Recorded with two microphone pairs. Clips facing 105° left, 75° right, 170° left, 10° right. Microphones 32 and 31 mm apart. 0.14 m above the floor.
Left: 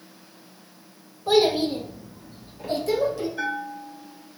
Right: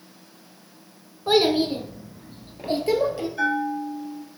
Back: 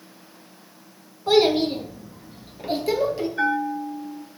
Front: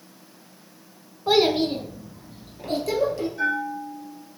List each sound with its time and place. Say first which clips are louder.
1.3 s a child speaking: even, back 2 dB; 70° right, 0.7 m; by 3.3 s 125° right, 1.7 m
3.4 s a bell: right 5 dB, back 5 dB; 175° right, 1.0 m